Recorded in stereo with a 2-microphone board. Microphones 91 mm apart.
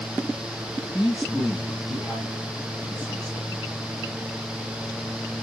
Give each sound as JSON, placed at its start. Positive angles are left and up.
{"t": 0.9, "sound": "a man speaking", "side_deg": 10, "distance_m": 1.9}